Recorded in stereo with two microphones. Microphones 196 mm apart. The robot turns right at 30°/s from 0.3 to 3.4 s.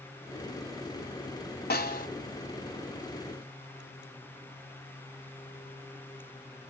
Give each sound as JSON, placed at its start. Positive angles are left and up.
{"t": 1.7, "sound": "a snare drum", "side_deg": 50, "distance_m": 1.7}